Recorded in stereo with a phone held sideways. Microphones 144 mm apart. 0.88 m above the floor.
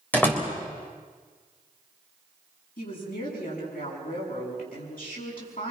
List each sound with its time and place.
0.1 s a door slam: 10° left (ahead or behind), 3.5 m
2.8 s a woman speaking: 80° left, 8 m